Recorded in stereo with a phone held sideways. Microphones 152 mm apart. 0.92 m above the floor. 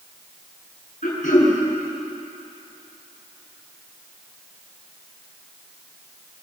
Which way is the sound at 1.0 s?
70° left (ahead or behind).